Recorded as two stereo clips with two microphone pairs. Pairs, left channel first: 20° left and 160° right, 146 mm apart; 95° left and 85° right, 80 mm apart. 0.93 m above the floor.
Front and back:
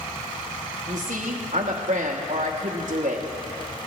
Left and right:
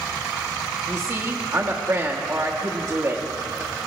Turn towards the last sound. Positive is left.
turn(degrees=-135)